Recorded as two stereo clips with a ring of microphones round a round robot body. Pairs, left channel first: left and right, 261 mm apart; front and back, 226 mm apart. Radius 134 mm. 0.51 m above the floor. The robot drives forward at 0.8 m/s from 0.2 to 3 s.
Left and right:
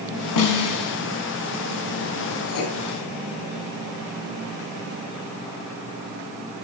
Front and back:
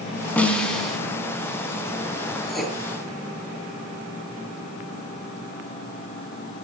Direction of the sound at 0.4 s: 85° left.